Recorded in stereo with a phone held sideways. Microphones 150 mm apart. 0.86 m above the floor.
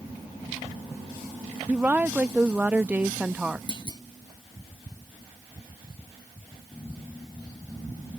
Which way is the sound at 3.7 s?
30° left (ahead or behind).